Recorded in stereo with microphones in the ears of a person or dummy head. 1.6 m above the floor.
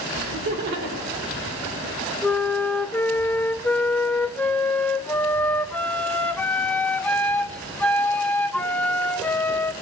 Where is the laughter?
65° right (ahead or behind), 5.5 m.